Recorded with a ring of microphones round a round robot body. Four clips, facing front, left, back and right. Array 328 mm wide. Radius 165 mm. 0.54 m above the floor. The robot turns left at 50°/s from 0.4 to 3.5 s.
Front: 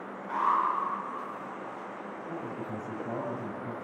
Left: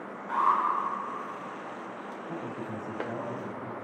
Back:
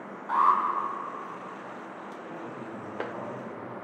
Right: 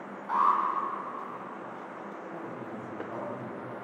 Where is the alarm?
145° right, 6 m; by 0.6 s 155° right, 6 m.